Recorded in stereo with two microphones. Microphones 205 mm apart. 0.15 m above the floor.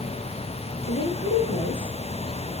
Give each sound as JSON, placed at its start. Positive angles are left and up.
{"t": 0.9, "sound": "a woman speaking", "side_deg": 70, "distance_m": 2.5}